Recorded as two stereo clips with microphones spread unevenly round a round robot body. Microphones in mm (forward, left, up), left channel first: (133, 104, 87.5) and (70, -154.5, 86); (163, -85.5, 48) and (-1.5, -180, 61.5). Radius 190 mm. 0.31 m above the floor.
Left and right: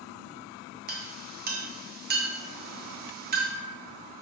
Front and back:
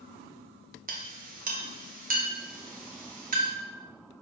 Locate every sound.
0.9 s a clink: 140° right, 0.9 m